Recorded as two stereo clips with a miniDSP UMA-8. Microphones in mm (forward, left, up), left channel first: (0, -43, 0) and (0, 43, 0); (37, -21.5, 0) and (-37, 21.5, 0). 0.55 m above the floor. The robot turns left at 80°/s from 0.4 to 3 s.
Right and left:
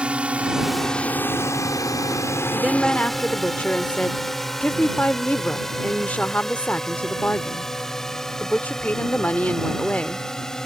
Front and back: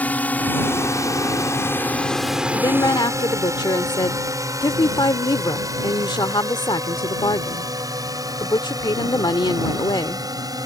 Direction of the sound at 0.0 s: 25° left.